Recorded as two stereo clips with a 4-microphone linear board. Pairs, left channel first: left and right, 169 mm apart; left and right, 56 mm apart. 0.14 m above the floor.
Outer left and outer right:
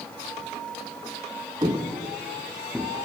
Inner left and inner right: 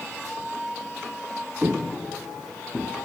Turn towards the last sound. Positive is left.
turn(degrees=5)  # may be behind; listen again after turning